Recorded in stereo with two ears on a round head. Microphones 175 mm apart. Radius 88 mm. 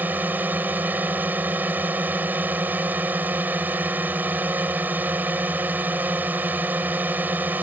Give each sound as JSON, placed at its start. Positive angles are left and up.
{"t": 0.0, "sound": "a drone", "side_deg": -10}